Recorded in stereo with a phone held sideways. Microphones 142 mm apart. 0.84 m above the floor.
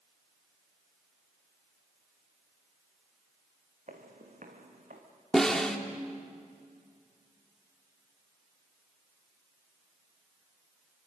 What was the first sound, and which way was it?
Footsteps, 60° right (ahead or behind).